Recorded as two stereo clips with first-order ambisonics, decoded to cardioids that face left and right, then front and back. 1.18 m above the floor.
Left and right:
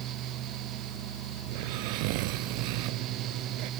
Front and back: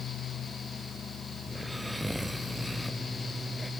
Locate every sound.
1.5 s snoring: 95° right